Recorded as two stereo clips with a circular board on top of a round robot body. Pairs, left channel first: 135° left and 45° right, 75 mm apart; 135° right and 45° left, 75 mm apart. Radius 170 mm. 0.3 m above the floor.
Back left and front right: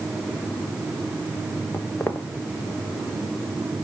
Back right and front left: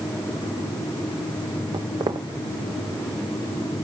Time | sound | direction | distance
1.7 | footsteps | 70° left | 0.9 m